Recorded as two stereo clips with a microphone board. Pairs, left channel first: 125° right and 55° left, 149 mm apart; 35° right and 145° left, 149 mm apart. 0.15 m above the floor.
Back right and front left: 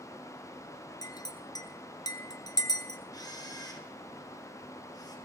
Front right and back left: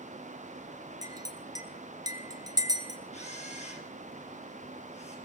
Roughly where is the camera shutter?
Ahead right.